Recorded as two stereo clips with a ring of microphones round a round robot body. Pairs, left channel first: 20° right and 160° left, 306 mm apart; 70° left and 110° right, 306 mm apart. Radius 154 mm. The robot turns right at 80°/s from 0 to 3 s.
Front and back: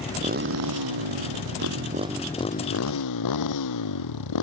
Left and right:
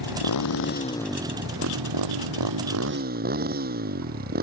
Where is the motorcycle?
70° left; by 4.4 s 50° right.